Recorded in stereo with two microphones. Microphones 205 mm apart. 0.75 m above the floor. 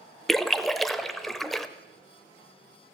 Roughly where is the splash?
Centre.